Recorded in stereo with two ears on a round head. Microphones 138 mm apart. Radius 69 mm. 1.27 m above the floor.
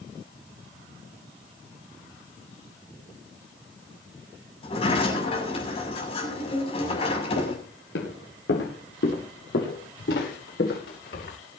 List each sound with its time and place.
4.6 s a sliding door: 40° left (ahead or behind), 6.5 m
7.4 s footsteps: 75° left (ahead or behind), 9.5 m; by 11.3 s 70° left (ahead or behind), 11 m